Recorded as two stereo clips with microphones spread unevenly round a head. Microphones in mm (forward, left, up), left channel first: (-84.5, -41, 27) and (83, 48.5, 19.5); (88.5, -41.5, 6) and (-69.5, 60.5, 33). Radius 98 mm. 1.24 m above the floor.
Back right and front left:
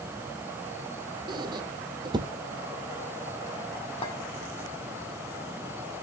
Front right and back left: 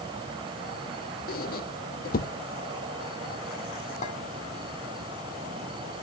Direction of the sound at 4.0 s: 85° right.